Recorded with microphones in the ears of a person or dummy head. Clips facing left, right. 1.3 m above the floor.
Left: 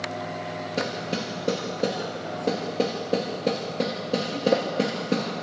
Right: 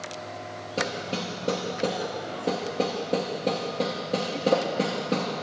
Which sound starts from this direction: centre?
Hammering, at 0.8 s.